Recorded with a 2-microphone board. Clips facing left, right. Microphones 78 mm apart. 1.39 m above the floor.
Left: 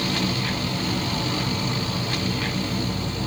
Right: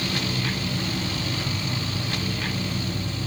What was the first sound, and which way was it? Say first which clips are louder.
An insect: left 2 dB; 70° left (ahead or behind).